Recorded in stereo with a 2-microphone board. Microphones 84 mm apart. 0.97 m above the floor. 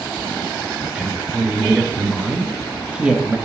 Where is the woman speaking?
5° right (ahead or behind), 1.8 m.